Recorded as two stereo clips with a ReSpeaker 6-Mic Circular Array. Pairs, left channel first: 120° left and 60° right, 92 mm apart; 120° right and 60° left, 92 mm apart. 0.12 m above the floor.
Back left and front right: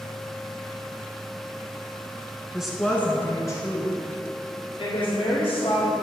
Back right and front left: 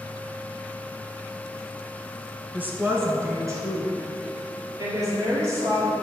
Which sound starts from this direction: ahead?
A woman speaking, at 2.5 s.